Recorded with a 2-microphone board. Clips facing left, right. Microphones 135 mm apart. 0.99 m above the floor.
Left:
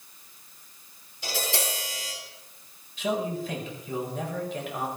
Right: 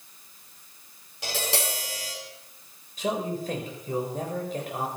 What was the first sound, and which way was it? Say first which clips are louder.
Tapping: right 1 dB; 75° right (ahead or behind).